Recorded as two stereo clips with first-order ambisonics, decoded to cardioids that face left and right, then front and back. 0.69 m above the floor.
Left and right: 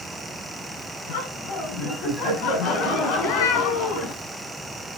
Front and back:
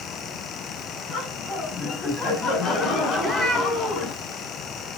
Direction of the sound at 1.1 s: 65° left.